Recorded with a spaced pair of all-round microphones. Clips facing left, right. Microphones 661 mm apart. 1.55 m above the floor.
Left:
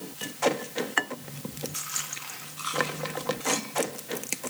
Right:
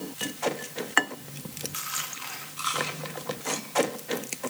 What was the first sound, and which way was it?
Only background noise.